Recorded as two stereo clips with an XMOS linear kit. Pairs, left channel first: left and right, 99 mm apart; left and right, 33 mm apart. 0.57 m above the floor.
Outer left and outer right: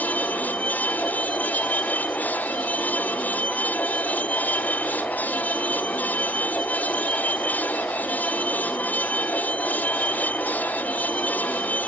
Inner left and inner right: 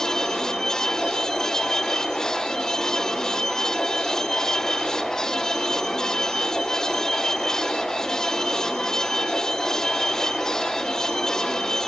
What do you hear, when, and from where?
0.0 s a vehicle: 15° left (ahead or behind)